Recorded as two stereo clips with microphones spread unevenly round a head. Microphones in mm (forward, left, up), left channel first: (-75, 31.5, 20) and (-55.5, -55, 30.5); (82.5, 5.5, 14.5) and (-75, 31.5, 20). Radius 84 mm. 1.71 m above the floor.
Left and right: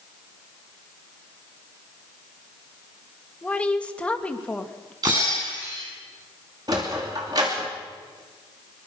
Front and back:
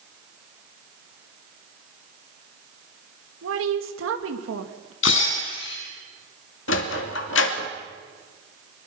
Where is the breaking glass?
10° right, 7 m.